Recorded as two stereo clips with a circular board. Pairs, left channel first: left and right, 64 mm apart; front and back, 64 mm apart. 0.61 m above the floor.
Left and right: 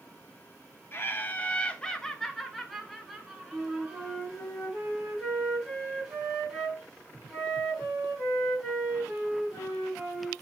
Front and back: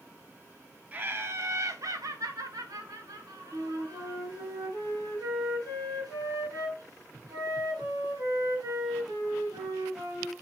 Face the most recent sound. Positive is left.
turn(degrees=180)